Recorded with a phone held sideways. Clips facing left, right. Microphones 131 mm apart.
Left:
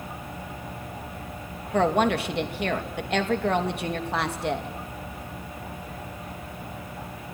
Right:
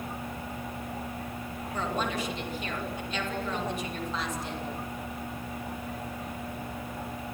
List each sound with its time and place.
1.7 s a woman speaking: 85° left, 2.5 m